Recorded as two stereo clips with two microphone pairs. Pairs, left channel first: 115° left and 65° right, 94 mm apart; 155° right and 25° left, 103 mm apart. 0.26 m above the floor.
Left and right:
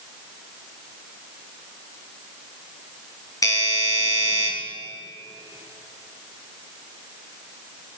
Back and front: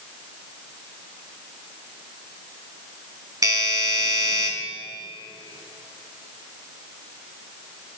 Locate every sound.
3.4 s a doorbell: 75° left, 4 m